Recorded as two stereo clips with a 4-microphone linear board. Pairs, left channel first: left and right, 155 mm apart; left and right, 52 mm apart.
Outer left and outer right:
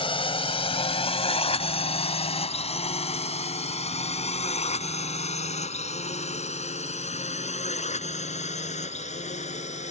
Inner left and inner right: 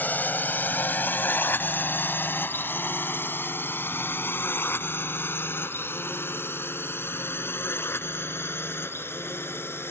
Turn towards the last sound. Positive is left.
turn(degrees=50)  # may be behind; listen again after turning